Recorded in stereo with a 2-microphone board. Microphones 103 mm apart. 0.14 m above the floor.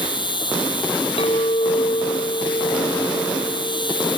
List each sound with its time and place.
0.0 s an insect: 50° left (ahead or behind)
1.2 s a clink: 75° left (ahead or behind)